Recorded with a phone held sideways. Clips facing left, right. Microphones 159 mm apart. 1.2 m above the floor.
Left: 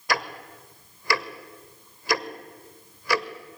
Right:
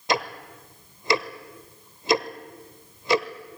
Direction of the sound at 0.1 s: 20° right (ahead or behind).